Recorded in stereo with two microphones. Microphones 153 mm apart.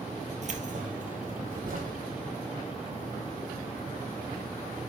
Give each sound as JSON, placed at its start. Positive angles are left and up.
{"t": 0.4, "sound": "keys jangling", "side_deg": -50, "distance_m": 2.0}